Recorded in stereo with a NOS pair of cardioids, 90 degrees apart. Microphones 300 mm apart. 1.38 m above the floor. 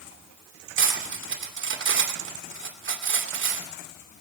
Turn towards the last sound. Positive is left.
turn(degrees=-40)